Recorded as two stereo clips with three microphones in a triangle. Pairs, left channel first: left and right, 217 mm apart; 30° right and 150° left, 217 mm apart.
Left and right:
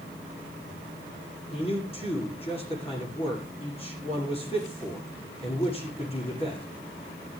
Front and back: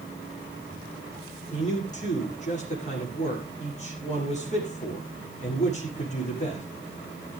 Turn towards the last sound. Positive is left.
turn(degrees=25)